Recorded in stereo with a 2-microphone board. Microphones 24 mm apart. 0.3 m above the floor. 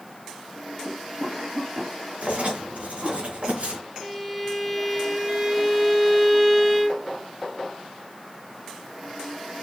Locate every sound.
0.8 s a cough: 30° right (ahead or behind), 2.5 m
2.2 s writing: 60° right (ahead or behind), 4 m
4.0 s a violin: 5° right (ahead or behind), 2 m